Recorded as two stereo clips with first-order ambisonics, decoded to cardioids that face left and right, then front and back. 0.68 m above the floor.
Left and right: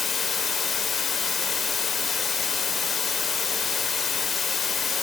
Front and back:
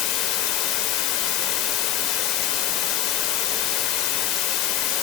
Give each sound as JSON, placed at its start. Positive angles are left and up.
{"t": 0.0, "sound": "running water", "azimuth_deg": 20, "distance_m": 1.3}